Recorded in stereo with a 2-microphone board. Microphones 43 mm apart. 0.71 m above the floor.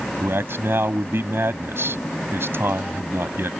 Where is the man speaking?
80° right.